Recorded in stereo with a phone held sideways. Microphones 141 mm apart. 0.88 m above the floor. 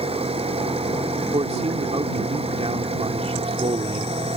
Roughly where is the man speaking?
Right.